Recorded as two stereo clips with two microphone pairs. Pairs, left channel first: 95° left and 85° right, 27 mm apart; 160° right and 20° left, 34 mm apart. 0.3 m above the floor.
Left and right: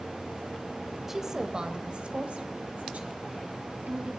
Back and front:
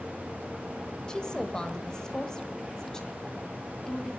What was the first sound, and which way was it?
A woman speaking, 150° right.